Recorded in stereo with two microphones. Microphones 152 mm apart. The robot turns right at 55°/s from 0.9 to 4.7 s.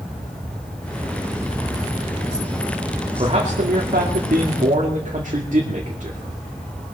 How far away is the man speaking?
About 2 m.